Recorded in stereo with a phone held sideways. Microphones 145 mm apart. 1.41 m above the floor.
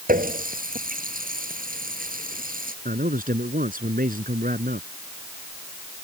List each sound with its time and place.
0.1 s a running tap: 80° right
2.9 s a man speaking: 75° right (ahead or behind)